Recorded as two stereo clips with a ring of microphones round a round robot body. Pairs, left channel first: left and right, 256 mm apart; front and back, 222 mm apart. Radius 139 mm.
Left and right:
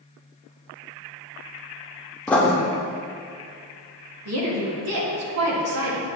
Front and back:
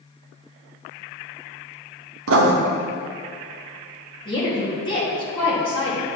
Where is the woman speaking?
70° right, 1.7 m.